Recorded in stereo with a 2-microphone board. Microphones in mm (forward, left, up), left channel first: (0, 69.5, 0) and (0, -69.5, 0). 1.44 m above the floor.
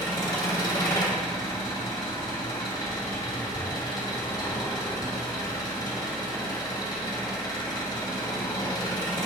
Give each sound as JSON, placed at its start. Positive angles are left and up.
{"t": 0.0, "sound": "an engine running", "side_deg": 30, "distance_m": 1.2}